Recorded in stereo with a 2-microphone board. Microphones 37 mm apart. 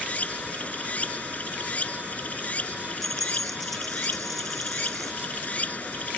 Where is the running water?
40° left (ahead or behind).